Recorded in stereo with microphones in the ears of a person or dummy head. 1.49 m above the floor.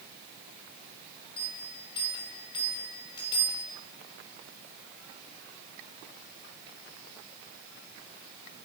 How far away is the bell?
About 2 m.